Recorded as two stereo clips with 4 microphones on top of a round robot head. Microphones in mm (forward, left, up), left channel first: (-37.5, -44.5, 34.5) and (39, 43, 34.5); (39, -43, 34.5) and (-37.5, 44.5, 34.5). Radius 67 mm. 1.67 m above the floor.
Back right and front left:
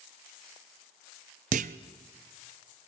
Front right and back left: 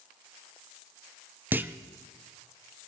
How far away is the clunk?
About 0.6 m.